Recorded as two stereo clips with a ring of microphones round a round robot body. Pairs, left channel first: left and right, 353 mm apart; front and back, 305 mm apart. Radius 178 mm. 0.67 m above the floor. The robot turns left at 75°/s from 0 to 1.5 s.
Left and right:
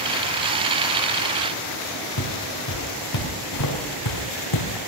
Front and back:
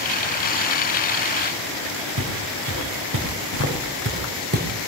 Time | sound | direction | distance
2.2 | footsteps | 140° left | 5 m